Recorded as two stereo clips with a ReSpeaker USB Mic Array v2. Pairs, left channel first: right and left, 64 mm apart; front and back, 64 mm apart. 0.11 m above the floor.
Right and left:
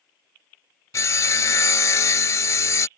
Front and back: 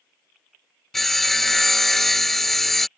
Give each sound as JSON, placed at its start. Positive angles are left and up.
{"t": 0.9, "sound": "sawing", "azimuth_deg": -85}